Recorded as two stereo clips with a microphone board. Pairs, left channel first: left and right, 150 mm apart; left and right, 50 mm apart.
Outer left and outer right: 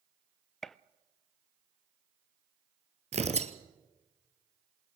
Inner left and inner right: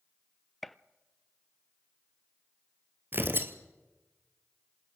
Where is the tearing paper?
45° right (ahead or behind), 1.5 m.